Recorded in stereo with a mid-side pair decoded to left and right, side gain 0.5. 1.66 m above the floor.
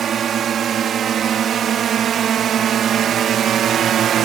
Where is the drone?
50° right; by 4.3 s 60° right.